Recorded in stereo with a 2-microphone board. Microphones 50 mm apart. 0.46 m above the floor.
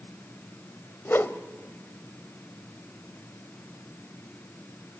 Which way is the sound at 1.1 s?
50° left (ahead or behind).